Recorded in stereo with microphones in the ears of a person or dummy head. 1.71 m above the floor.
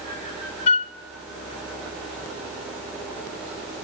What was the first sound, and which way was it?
A flute, 35° left (ahead or behind).